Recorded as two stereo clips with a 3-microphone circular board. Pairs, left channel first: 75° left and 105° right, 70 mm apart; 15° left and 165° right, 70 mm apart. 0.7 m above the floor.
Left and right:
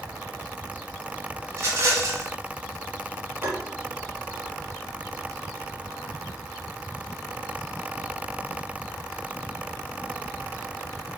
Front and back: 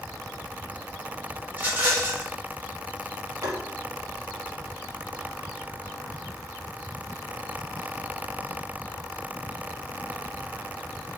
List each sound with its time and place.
1.5 s a rattle: 115° right, 1.2 m
3.4 s tapping: 155° right, 0.9 m